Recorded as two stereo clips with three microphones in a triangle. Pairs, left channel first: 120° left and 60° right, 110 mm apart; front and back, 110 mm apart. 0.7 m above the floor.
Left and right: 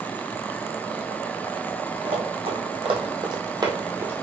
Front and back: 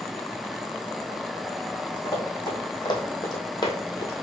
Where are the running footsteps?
45° right, 1.8 m; by 4.1 s 5° right, 0.8 m.